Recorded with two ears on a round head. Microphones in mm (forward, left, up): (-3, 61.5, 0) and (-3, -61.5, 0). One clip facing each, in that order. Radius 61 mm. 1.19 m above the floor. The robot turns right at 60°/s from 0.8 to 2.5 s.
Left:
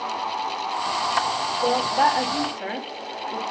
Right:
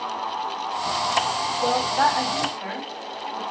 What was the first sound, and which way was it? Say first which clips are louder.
A woman speaking: left 1 dB; 5° right.